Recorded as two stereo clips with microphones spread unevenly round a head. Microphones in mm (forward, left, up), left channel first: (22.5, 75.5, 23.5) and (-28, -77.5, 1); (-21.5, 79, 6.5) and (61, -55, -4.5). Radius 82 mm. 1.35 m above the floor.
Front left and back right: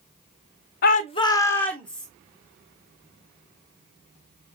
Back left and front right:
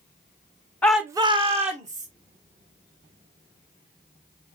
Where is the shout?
40° left, 0.5 m; by 2.1 s 15° right, 1.5 m.